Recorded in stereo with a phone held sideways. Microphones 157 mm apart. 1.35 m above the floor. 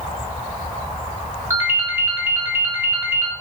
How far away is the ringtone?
About 0.6 m.